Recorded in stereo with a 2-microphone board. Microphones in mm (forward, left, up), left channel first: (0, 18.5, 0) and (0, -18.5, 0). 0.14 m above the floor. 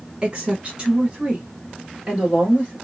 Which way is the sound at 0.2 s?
20° right (ahead or behind).